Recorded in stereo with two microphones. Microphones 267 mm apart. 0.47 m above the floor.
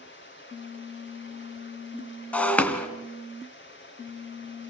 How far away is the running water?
About 4 m.